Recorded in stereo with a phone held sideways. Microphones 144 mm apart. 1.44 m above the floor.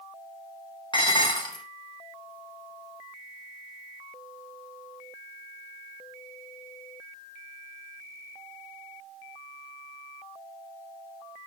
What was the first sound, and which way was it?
Dishes clattering, 35° left (ahead or behind).